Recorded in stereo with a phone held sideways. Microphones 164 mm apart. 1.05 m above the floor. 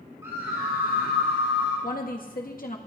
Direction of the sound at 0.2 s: 20° right (ahead or behind).